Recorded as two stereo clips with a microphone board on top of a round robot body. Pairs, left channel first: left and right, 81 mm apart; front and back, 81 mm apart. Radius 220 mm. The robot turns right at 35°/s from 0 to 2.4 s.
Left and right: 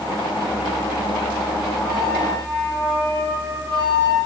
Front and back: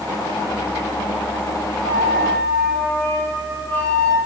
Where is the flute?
45° left, 5.5 m; by 4.2 s 65° left, 5.5 m.